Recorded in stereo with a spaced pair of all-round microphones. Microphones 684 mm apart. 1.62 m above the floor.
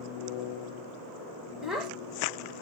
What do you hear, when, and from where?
1.6 s a child speaking: centre (ahead or behind), 1.7 m